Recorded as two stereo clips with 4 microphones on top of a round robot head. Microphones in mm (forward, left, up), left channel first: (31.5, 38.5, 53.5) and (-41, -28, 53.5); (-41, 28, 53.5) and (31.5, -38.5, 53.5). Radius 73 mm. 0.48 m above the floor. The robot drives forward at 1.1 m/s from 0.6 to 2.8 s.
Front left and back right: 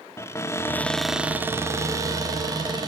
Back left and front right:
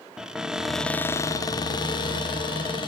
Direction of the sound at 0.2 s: 35° left.